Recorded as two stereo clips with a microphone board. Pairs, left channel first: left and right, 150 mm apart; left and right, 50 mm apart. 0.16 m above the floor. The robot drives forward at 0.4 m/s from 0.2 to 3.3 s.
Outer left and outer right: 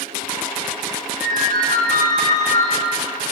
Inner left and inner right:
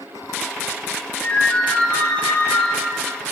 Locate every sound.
1.2 s a ringtone: 55° left (ahead or behind), 6 m; by 2.7 s 50° left (ahead or behind), 6 m